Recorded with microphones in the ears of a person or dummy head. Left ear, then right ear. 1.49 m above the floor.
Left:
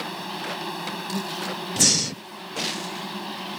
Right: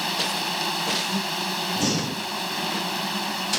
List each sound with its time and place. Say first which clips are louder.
0.0 s an insect: right 6 dB; 30° right (ahead or behind)
1.8 s breathing: left 4 dB; 60° left (ahead or behind)